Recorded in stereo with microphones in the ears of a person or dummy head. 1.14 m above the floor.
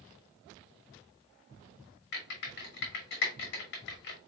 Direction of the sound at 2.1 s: 55° left (ahead or behind).